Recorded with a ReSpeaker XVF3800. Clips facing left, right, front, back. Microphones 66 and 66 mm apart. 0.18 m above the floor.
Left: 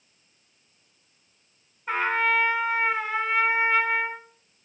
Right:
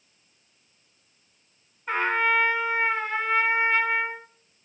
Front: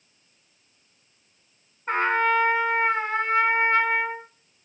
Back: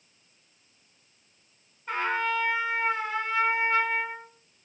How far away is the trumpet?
About 2.0 m.